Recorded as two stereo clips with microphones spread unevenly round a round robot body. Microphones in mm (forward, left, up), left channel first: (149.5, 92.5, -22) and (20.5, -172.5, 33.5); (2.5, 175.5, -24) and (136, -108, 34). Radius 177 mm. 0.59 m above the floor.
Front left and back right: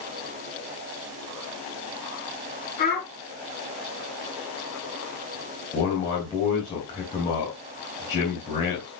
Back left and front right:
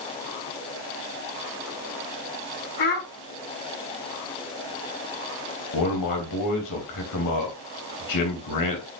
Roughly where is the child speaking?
Behind left.